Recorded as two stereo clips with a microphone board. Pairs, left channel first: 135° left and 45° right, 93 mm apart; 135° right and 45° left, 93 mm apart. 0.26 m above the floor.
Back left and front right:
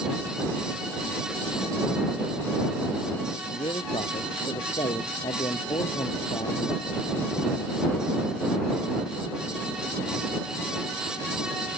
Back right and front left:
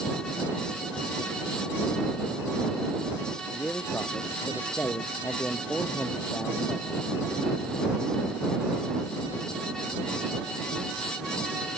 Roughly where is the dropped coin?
I don't hear a dropped coin.